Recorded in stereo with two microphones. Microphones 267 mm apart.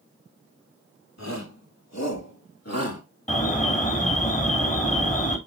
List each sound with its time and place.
1.2 s a shout: 80° left, 3.5 m; by 3.0 s 60° left (ahead or behind), 2.5 m
3.3 s an alarm: 25° left (ahead or behind), 2.5 m